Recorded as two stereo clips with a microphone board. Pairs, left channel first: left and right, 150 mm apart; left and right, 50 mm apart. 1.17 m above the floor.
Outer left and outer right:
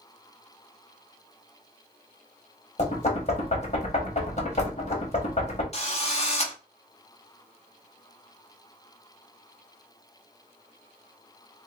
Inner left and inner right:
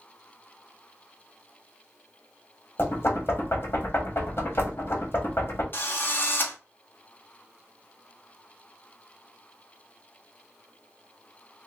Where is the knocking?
50° left (ahead or behind), 1.2 m.